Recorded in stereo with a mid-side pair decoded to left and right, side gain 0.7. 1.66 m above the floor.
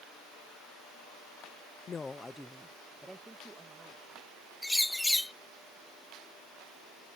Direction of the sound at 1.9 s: 35° left.